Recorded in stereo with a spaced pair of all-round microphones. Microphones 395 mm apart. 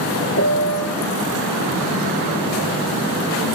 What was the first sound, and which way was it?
A piano, 35° left (ahead or behind).